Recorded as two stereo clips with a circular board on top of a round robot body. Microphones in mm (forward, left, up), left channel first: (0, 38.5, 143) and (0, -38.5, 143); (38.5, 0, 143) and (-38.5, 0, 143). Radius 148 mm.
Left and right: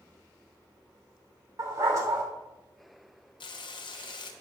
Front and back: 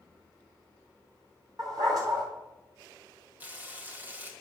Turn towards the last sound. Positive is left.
turn(degrees=110)